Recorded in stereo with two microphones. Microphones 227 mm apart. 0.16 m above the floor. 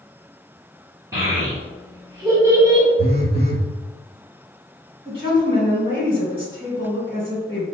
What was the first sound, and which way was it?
A child speaking, 15° right (ahead or behind).